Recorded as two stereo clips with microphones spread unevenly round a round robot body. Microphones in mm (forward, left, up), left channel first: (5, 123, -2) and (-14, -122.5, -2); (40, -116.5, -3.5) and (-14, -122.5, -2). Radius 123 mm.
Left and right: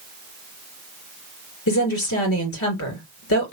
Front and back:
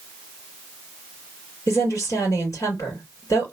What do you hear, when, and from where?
1.7 s a woman speaking: 50° left, 2 m